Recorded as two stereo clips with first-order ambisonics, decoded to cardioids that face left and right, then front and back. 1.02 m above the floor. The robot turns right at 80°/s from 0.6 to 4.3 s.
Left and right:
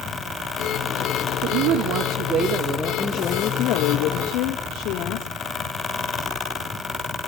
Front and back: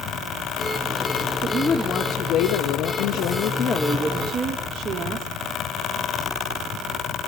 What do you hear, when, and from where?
1.4 s a woman speaking: 115° right, 1.4 m; by 5.3 s 115° left, 1.4 m